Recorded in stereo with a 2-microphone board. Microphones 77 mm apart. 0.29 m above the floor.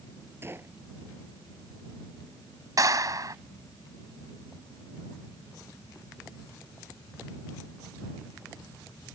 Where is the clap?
55° right (ahead or behind).